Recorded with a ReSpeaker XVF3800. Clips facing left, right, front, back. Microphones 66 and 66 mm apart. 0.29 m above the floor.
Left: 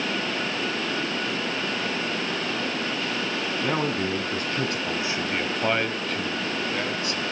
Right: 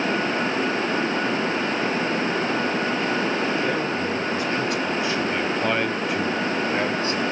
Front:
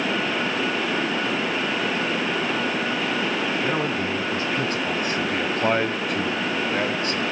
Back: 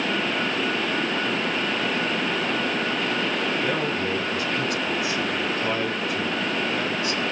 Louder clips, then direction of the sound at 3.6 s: Right 2 dB, front 1 dB; 65° left.